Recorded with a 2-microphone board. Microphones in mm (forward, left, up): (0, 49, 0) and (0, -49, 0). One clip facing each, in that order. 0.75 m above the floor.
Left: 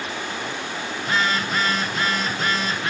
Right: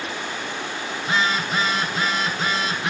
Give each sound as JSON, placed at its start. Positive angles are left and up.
{"t": 1.0, "sound": "a phone buzzing", "side_deg": -15, "distance_m": 1.5}